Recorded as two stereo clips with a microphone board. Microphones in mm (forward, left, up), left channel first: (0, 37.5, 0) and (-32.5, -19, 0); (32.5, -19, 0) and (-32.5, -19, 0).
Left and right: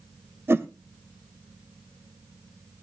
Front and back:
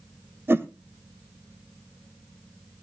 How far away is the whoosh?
About 1.2 m.